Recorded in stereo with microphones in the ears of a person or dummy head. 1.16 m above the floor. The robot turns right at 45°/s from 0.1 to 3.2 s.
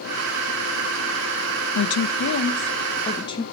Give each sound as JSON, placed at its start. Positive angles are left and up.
{"t": 1.8, "sound": "a woman speaking", "azimuth_deg": 95, "distance_m": 0.7}